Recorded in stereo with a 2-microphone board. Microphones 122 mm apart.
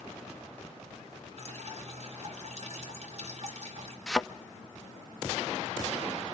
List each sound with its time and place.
1.4 s dripping: 55° right (ahead or behind), 4 m
4.1 s a thud: 5° left (ahead or behind), 0.8 m